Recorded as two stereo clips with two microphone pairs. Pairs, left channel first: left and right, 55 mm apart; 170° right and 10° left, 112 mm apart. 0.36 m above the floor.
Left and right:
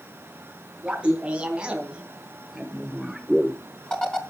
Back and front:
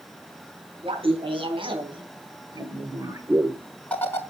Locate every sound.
0.8 s laughter: 20° right, 3.5 m; by 4.2 s 145° left, 1.3 m